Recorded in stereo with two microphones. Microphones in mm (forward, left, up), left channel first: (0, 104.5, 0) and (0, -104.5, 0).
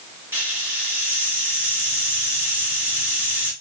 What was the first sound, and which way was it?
A hiss, 10° right (ahead or behind).